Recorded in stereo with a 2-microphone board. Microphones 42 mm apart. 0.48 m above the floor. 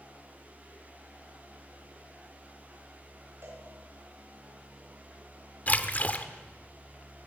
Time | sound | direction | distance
3.4 | a cowbell | 85° right | 9 m
5.7 | a splash | 40° left (ahead or behind) | 1.3 m